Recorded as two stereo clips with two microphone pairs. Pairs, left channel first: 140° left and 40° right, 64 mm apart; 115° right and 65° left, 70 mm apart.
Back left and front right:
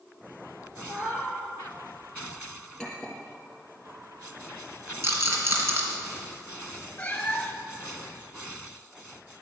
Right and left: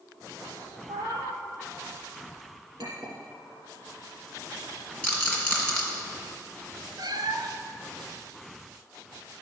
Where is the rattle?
45° right, 2.5 m.